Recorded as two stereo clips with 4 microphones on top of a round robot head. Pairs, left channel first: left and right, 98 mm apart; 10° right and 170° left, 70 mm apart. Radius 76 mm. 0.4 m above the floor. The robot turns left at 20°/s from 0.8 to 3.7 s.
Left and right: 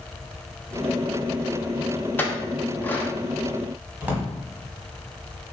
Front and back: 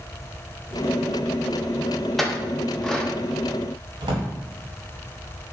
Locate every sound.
2.2 s a clink: 75° left, 0.5 m; by 3.1 s 55° left, 0.5 m
4.0 s a drawer: 165° right, 0.8 m